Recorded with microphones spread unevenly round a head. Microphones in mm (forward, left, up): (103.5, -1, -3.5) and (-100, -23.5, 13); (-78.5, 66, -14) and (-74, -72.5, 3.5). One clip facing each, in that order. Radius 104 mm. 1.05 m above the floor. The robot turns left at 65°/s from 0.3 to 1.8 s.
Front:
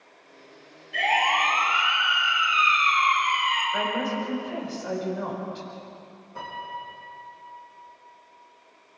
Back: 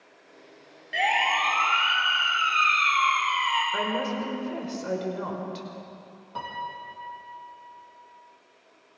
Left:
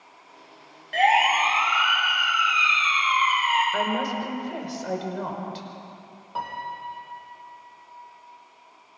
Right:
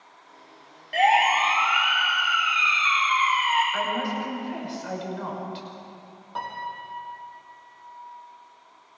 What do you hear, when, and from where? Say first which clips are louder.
0.9 s a siren: front 1 dB, even; 165° right, 7 m; by 3.6 s 155° left, 9.5 m
3.7 s a woman speaking: front 1 dB, left 2 dB; 135° left, 5 m
6.3 s a piano: back 1 dB, left 1 dB; 175° left, 5.5 m